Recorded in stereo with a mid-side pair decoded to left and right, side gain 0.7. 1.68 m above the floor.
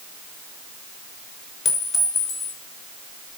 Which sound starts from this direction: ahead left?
A clink, at 1.6 s.